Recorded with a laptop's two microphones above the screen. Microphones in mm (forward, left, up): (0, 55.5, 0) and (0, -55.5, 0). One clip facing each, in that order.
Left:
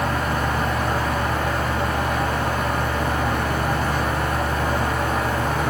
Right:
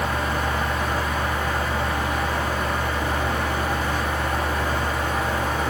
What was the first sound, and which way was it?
A fan, 50° left (ahead or behind).